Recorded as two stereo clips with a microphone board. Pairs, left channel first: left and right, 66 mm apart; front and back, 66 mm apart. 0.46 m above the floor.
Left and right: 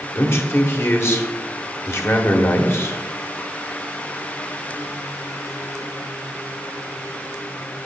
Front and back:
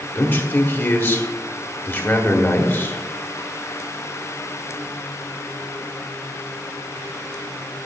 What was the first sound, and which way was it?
A man speaking, 50° left.